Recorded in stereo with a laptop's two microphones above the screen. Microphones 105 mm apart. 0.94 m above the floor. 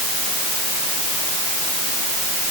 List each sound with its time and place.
Only background noise.